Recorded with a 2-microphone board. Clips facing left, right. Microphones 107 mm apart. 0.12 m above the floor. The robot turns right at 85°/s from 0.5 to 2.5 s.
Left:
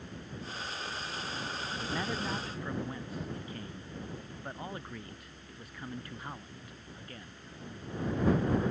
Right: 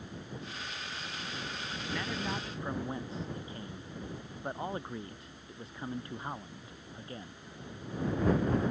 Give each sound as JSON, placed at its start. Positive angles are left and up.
{"t": 1.8, "sound": "a man speaking", "azimuth_deg": 145}